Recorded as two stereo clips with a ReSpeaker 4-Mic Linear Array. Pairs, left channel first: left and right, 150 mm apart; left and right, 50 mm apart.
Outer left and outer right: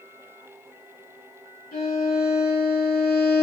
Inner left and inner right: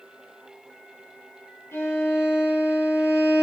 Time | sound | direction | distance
1.7 | a violin | 80° left | 6.5 m